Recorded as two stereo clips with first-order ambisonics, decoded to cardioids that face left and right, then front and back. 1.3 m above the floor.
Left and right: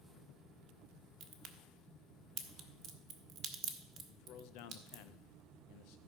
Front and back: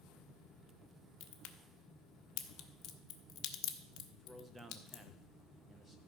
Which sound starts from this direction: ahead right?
A crack, at 1.2 s.